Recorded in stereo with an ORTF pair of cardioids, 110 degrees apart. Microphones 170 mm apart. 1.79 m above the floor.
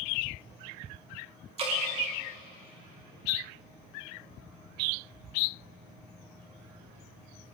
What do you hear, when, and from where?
1.6 s dripping: 35° right, 2.5 m